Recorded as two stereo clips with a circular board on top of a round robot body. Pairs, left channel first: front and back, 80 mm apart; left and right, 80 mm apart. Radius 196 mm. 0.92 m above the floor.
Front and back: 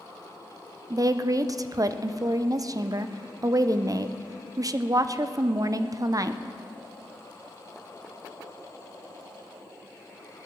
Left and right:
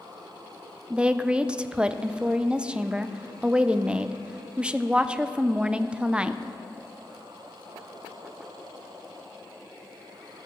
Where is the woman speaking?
165° right, 0.7 m.